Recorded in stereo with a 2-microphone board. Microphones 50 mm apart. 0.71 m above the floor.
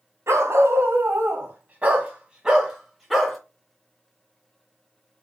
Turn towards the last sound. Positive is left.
turn(degrees=0)  # may be behind; listen again after turning